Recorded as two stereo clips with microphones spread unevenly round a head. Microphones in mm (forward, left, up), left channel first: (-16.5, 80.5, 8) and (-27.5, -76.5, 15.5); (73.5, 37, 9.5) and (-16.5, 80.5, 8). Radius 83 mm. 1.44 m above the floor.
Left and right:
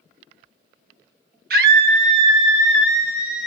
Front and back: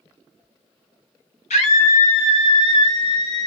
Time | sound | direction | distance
1.5 | a scream | 60° right | 1.5 m